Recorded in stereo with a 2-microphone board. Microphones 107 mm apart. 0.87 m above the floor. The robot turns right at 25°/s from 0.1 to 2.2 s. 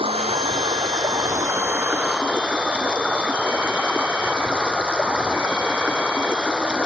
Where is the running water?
60° right; by 6.9 s 10° right.